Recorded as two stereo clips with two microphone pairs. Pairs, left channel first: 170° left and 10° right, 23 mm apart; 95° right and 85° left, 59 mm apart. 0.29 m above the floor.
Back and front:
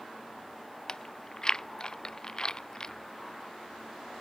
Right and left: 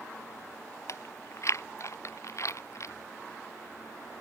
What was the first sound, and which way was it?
Chewing, 130° right.